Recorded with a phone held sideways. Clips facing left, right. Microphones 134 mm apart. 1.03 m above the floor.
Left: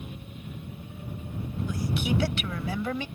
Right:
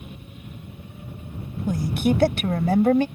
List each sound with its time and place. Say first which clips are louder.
1.7 s a woman speaking: right 8 dB; 50° right (ahead or behind)